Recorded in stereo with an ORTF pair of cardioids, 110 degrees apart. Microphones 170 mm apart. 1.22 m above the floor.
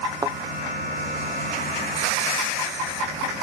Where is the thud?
20° right.